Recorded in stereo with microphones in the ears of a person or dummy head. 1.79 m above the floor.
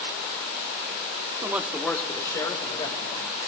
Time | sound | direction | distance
1.4 | a man speaking | 20° right (ahead or behind) | 0.7 m